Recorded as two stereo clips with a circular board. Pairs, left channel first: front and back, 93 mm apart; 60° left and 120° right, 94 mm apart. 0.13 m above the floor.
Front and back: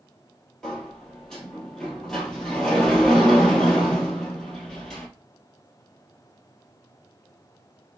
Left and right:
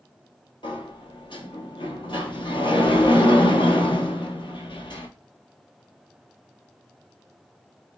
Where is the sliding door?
80° left, 1.2 m.